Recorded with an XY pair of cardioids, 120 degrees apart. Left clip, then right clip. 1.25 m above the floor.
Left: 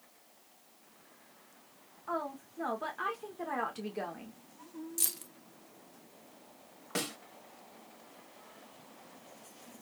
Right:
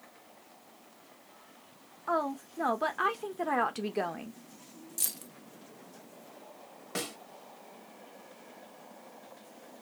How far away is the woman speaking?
About 1.2 m.